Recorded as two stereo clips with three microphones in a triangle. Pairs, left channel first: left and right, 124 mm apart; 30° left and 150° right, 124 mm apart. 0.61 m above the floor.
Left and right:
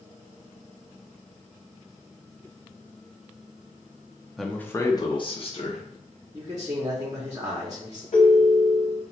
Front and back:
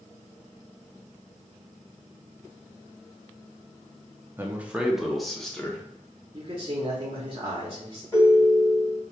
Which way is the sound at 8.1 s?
90° left.